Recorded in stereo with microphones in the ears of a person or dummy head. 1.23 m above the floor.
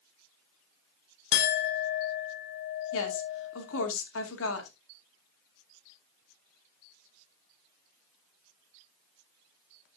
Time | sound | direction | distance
1.3 | a clink | 60° left (ahead or behind) | 0.6 m
2.9 | a woman speaking | 80° left | 2.5 m